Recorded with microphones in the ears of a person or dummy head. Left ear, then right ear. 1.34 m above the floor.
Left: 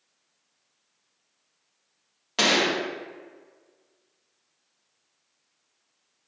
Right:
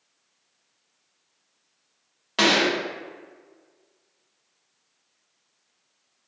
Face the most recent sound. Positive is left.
turn(degrees=-10)  # may be behind; listen again after turning